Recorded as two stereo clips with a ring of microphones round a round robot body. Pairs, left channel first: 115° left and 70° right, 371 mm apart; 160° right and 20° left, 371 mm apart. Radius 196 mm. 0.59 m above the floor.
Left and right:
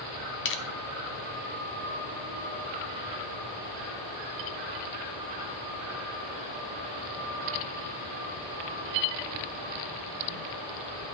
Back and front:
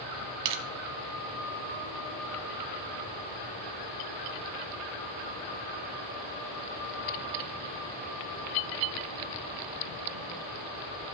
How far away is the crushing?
About 0.9 m.